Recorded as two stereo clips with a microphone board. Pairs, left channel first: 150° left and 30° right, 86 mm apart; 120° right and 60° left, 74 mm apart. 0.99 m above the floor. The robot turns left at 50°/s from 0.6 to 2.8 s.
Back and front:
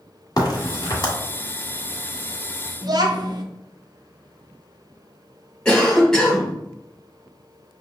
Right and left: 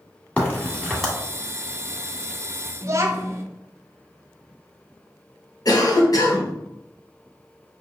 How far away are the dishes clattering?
I don't hear dishes clattering.